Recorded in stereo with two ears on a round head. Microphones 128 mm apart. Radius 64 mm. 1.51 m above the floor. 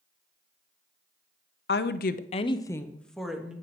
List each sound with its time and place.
1.7 s a woman speaking: 75° left (ahead or behind), 0.6 m; by 3.5 s 5° right (ahead or behind), 1.1 m